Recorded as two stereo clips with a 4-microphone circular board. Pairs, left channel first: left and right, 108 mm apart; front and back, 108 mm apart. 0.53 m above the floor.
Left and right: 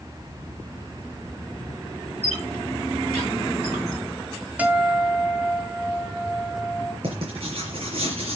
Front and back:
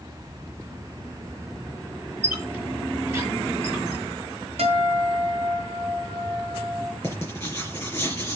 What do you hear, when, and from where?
2.2 s a squeak: 105° right, 3 m
4.6 s a guitar: 165° right, 1.9 m
7.0 s writing: 70° right, 4.5 m